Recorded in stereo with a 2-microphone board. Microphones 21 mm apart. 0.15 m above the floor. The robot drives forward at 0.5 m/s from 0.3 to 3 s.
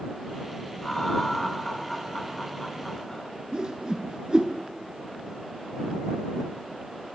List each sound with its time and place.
0.8 s laughter: 20° left (ahead or behind), 1.7 m
3.5 s a whoosh: 45° right (ahead or behind), 0.7 m